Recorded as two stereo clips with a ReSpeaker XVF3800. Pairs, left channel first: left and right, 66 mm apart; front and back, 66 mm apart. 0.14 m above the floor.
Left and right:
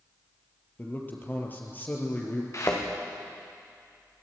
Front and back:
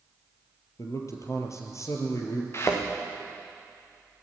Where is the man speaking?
30° left, 4 m.